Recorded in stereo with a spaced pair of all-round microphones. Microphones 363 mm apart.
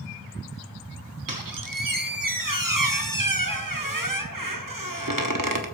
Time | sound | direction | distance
1.3 | a squeak | 60° right (ahead or behind) | 1.3 m